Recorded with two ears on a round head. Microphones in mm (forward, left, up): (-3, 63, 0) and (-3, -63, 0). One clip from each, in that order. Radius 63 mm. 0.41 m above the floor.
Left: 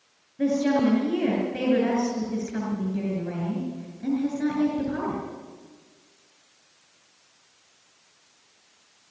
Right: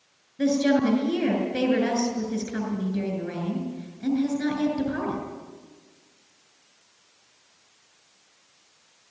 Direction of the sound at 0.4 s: 80° right.